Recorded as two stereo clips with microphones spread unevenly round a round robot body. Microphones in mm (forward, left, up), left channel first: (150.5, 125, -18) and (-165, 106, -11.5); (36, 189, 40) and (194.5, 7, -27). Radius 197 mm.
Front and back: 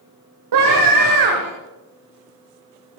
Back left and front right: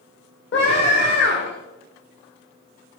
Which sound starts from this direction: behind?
A scream, at 0.5 s.